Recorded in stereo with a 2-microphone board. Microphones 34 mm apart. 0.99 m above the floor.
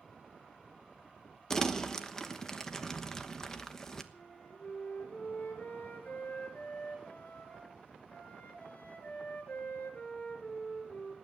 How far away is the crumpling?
About 1.1 m.